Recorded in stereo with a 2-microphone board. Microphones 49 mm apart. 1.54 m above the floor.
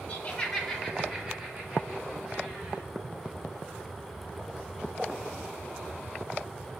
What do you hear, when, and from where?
0.1 s laughter: 35° left (ahead or behind), 1.0 m; by 2.8 s 25° right (ahead or behind), 3.5 m